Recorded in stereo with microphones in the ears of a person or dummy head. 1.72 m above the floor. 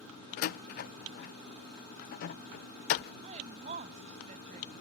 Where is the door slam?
45° left (ahead or behind).